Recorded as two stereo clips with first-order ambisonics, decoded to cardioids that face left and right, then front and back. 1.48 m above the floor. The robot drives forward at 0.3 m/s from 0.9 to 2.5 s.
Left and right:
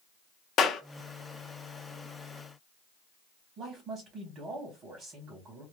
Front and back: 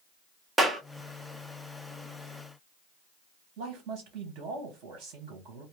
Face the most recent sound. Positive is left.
turn(degrees=-145)